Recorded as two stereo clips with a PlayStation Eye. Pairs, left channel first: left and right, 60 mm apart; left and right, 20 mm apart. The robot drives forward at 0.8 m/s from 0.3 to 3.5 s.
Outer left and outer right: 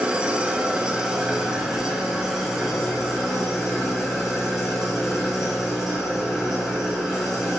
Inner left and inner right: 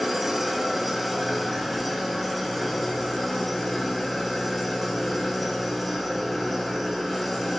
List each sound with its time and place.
0.0 s an engine running: 15° right (ahead or behind), 1.4 m; by 7.6 s 5° right (ahead or behind), 4 m